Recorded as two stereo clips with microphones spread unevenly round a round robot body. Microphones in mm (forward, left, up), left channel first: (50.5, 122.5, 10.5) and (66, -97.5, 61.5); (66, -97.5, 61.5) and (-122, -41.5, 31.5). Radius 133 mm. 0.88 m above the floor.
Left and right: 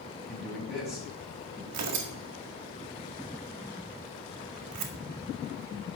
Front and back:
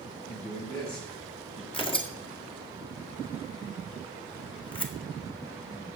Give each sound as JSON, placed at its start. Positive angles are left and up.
{"t": 0.3, "sound": "a man speaking", "azimuth_deg": 5, "distance_m": 5.5}
{"t": 1.7, "sound": "tearing paper", "azimuth_deg": -85, "distance_m": 2.0}